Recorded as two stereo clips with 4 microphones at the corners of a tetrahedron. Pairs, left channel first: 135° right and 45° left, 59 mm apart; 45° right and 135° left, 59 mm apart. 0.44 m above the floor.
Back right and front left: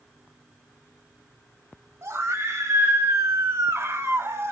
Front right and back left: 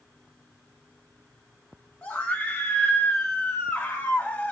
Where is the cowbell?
No cowbell in this recording.